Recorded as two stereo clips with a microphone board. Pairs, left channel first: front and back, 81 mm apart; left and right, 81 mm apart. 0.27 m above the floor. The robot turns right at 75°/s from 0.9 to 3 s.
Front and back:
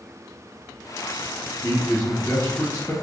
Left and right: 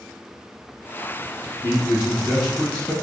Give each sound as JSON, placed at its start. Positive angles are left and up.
{"t": 1.6, "sound": "a man speaking", "azimuth_deg": -65, "distance_m": 1.0}